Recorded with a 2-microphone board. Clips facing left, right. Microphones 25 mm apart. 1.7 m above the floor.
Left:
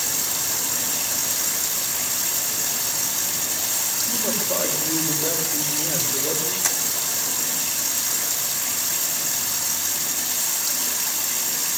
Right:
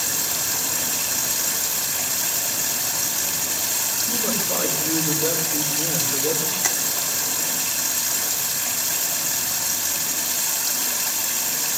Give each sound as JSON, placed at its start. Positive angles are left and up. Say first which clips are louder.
{"t": 0.0, "sound": "running water", "louder": "right 1 dB", "side_deg": -30, "distance_m": 5.5}
{"t": 4.1, "sound": "a man speaking", "louder": "even", "side_deg": -60, "distance_m": 6.0}
{"t": 6.6, "sound": "tapping", "louder": "right 1 dB", "side_deg": -25, "distance_m": 2.0}